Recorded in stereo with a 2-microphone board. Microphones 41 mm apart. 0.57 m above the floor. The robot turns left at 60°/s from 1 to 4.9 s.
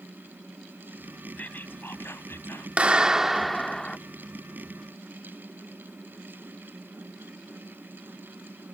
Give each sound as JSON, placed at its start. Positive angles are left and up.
{"t": 1.4, "sound": "whispering", "azimuth_deg": 140}
{"t": 2.8, "sound": "a clap", "azimuth_deg": -140}